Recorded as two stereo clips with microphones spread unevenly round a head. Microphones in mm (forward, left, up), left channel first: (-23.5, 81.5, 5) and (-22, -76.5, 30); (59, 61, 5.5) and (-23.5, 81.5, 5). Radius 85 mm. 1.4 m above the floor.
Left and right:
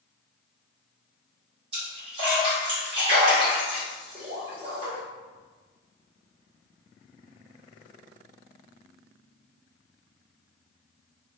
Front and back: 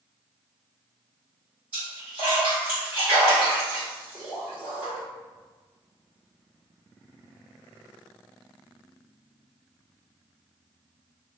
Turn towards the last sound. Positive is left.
turn(degrees=-125)